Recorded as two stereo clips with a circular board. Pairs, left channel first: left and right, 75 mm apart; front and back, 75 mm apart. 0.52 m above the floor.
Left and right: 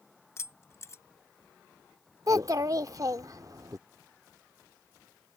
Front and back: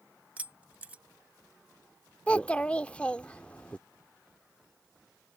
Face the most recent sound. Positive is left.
turn(degrees=-70)